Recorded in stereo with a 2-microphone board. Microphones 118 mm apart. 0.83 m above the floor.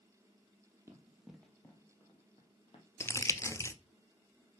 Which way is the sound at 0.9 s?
20° right (ahead or behind).